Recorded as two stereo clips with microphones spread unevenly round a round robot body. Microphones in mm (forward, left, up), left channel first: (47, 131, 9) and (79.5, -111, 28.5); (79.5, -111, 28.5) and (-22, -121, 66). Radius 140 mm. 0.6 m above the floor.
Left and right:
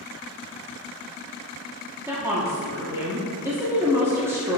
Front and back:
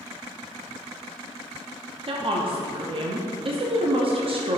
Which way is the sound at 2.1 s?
165° right.